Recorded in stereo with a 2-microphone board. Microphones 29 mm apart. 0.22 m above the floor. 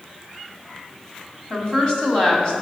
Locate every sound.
1.5 s a woman speaking: 30° left (ahead or behind), 1.4 m